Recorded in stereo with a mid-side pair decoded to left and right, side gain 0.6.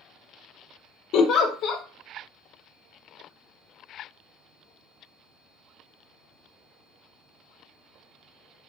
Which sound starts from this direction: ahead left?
A giggle, at 1.1 s.